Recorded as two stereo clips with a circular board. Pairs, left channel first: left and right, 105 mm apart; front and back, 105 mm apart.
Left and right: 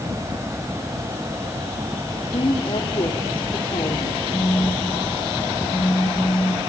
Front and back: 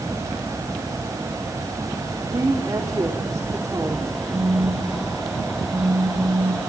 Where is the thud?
I don't hear a thud.